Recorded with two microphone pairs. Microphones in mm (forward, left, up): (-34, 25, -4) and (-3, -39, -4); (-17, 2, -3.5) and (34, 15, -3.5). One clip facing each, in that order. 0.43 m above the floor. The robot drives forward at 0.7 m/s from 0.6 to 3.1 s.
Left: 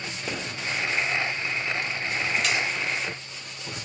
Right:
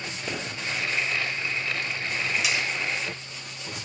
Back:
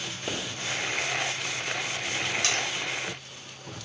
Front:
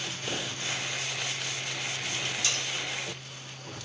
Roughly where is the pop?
Behind.